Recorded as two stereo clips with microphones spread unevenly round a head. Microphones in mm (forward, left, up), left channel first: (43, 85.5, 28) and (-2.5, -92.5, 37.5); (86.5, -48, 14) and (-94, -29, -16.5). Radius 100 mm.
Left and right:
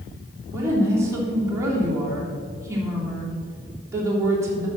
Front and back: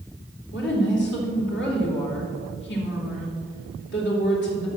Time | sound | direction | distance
0.5 | a woman speaking | 30° right | 3 m